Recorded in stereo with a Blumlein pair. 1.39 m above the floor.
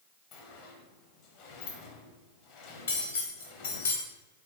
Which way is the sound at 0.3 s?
40° left.